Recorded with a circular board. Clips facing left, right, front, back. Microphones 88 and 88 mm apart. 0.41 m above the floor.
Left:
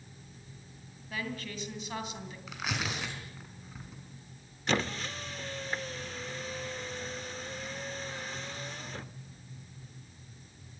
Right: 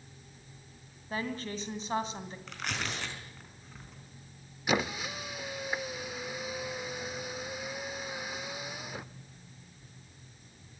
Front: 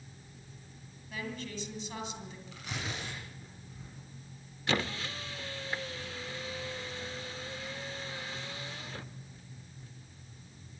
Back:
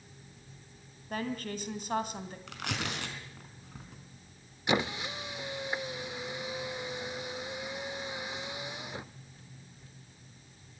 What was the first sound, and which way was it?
A woman speaking, 145° right.